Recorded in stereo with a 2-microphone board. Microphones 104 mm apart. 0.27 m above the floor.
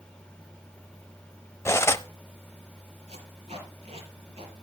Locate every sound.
1.6 s cutlery clinking: 25° left (ahead or behind), 0.5 m
3.1 s tape being pulled: 75° right (ahead or behind), 5.5 m